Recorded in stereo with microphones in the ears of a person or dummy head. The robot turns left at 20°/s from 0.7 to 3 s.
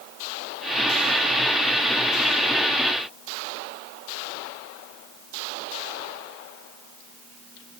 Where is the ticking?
No ticking in this recording.